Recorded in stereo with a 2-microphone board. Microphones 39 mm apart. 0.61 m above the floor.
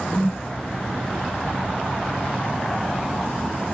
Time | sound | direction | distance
0.1 | a whoosh | 65° left (ahead or behind) | 2.0 m